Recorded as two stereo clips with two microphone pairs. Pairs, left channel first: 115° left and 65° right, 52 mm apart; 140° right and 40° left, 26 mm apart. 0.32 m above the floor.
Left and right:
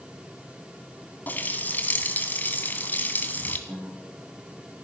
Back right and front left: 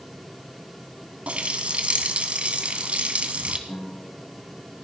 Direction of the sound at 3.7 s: 140° right.